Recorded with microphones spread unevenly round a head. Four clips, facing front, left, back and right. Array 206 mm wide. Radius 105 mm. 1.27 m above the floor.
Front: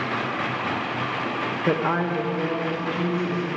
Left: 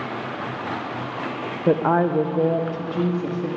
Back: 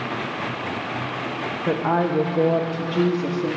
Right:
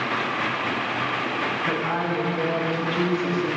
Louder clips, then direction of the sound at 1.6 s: Left 11 dB, back 3 dB; 95° left.